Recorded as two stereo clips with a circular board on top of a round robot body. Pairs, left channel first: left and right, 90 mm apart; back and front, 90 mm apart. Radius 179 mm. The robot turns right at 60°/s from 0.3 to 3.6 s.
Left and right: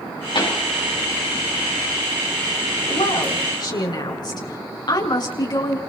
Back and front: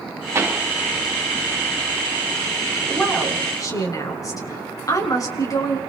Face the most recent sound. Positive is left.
turn(degrees=130)